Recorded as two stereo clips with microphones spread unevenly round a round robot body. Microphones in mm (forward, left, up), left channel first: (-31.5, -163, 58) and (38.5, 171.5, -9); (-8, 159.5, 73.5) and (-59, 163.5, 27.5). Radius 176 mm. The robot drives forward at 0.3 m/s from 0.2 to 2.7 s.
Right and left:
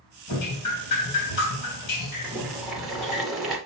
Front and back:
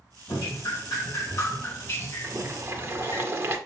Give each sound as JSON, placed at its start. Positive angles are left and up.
{"t": 0.3, "sound": "dripping", "azimuth_deg": -60, "distance_m": 2.5}
{"t": 2.2, "sound": "boiling", "azimuth_deg": 165, "distance_m": 2.0}